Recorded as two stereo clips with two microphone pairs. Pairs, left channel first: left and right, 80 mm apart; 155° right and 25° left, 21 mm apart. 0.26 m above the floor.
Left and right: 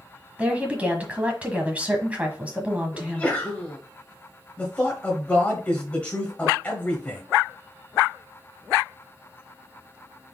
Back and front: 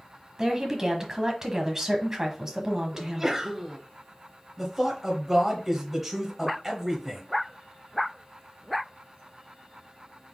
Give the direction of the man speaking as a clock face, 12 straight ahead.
10 o'clock.